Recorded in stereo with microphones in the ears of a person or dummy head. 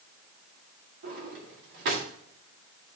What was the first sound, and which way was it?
A drawer, 60° right (ahead or behind).